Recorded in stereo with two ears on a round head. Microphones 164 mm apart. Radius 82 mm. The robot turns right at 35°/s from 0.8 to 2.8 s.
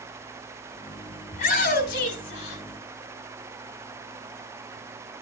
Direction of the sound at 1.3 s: 40° left.